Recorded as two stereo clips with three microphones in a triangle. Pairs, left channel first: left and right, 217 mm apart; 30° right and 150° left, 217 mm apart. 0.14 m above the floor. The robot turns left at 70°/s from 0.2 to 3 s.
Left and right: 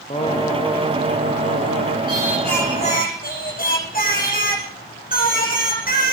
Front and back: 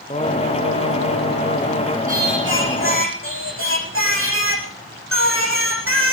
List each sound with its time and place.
0.1 s singing: 30° left, 2 m; by 2.0 s 95° right, 2 m
2.1 s singing: 155° right, 9 m; by 6.1 s 140° left, 9 m